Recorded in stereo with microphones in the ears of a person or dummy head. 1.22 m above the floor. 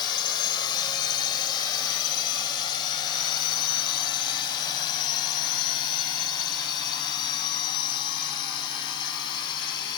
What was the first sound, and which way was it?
A drone, 25° left (ahead or behind).